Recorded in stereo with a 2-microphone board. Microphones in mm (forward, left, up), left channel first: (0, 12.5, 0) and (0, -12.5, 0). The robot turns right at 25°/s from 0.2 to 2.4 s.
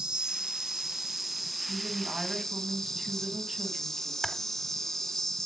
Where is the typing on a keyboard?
15° left (ahead or behind), 1.2 m.